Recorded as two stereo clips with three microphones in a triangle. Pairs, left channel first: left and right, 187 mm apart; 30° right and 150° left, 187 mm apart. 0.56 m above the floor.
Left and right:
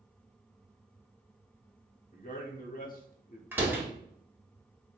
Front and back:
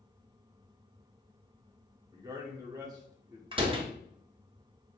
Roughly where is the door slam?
Behind.